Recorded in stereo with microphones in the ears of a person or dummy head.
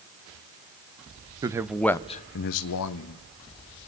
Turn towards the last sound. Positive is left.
turn(degrees=85)